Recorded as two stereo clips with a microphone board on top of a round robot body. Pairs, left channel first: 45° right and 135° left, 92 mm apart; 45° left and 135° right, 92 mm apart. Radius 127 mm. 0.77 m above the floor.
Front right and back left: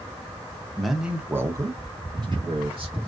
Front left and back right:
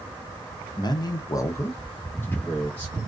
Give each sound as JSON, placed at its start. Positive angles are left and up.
{"t": 0.8, "sound": "a man speaking", "azimuth_deg": 40, "distance_m": 0.7}